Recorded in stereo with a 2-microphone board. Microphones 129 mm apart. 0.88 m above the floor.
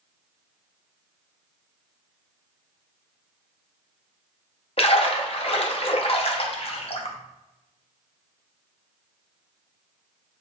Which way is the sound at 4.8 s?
50° left (ahead or behind).